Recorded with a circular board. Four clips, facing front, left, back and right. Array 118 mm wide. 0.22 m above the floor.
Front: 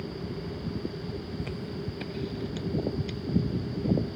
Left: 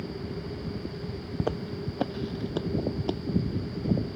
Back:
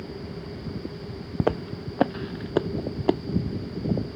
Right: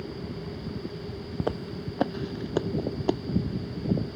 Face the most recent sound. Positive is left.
turn(degrees=-160)